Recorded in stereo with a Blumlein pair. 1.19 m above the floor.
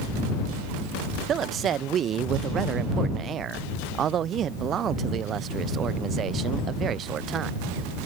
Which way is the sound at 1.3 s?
25° right.